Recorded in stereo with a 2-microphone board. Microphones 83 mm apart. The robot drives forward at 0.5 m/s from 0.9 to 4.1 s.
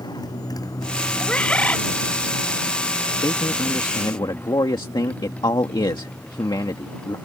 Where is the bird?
15° left (ahead or behind).